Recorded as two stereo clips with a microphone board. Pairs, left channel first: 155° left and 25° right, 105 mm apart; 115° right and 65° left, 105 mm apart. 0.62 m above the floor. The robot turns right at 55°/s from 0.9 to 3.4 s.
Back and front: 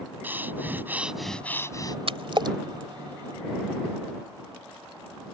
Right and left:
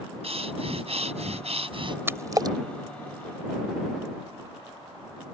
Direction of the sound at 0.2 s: 50° left.